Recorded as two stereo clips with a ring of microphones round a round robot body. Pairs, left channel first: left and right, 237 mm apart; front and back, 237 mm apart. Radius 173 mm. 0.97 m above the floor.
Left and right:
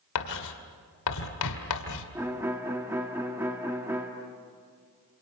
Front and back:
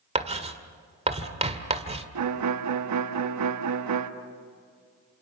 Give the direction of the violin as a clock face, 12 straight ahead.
6 o'clock.